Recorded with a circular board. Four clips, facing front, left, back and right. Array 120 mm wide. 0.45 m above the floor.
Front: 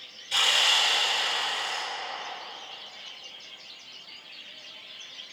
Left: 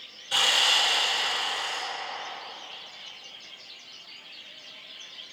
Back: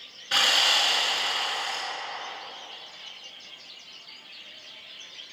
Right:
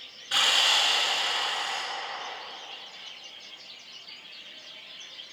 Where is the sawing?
165° right, 3 m.